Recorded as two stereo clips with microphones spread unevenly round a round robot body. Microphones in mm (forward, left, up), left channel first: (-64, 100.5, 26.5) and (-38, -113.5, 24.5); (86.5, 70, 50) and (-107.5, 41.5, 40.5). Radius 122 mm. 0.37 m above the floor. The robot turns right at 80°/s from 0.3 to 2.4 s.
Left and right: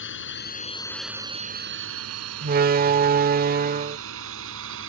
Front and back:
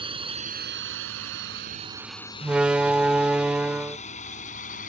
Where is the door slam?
90° right.